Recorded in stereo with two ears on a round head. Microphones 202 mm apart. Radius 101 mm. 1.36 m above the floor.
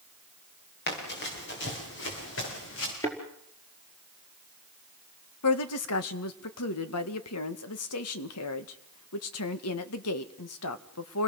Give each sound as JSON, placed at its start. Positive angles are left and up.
{"t": 0.9, "sound": "running footsteps", "side_deg": 50, "distance_m": 9.0}
{"t": 3.0, "sound": "a thud", "side_deg": 15, "distance_m": 4.5}
{"t": 5.4, "sound": "a woman speaking", "side_deg": 75, "distance_m": 1.8}